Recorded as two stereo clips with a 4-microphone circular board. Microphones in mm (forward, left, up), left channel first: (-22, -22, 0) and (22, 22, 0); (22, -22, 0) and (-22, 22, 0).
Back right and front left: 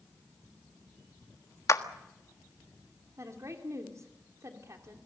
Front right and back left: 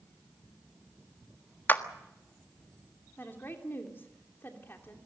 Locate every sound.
1.7 s a clap: 100° right, 1.5 m
3.2 s a woman speaking: 5° left, 3 m